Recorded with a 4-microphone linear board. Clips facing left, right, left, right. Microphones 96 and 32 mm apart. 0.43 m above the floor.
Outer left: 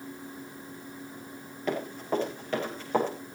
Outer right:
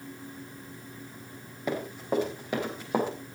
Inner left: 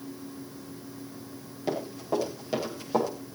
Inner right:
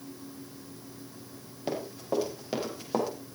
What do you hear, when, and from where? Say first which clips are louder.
1.7 s running footsteps: even, inner left 2 dB; 10° right (ahead or behind), 7 m